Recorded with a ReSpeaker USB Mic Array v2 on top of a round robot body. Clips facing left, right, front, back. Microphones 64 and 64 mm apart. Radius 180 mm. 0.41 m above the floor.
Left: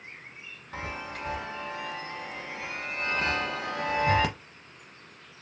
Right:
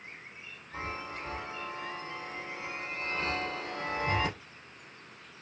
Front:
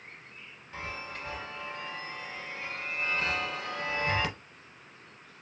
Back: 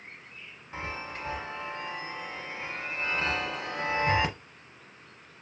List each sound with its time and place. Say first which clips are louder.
0.7 s a chime: left 2 dB, back 2 dB; 115° left, 0.8 m